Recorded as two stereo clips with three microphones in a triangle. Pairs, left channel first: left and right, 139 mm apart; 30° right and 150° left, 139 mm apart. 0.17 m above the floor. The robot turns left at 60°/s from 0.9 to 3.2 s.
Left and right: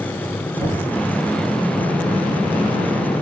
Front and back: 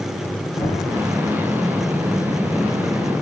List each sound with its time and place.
0.6 s knocking: 35° left, 3.5 m